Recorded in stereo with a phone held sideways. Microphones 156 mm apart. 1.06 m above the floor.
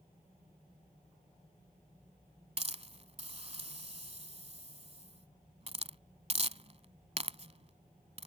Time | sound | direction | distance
2.6 | a hiss | 40° right (ahead or behind) | ?